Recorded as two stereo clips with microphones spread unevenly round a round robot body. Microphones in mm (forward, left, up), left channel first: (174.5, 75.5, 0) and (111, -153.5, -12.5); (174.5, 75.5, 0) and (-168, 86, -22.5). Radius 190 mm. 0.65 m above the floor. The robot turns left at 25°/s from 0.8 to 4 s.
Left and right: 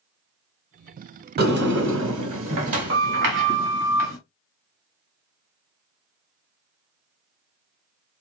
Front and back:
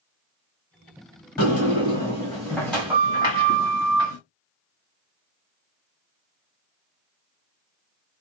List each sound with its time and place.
1.4 s a sliding door: 55° right, 1.3 m; by 4.2 s 120° right, 1.3 m